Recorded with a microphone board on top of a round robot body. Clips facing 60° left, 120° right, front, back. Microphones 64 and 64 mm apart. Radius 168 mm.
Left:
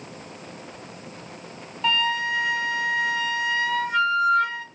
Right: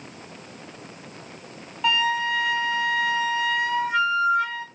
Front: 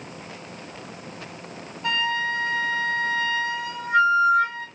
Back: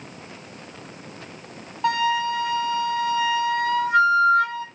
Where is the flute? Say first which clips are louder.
Right 1 dB, back 3 dB; 155° left, 3 m.